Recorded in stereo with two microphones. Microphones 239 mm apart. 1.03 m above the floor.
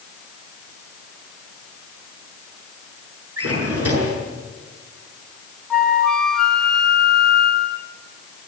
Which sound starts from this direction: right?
A drawer, at 3.4 s.